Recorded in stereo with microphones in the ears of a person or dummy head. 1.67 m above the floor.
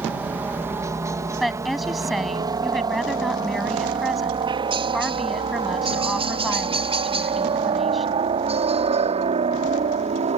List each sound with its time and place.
0.0 s a helicopter: 15° right (ahead or behind); by 10.4 s 40° right (ahead or behind)
1.4 s a woman speaking: 5° right (ahead or behind)